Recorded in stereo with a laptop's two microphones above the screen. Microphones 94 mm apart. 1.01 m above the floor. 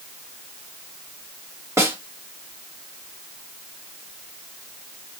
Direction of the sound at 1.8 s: 30° right (ahead or behind).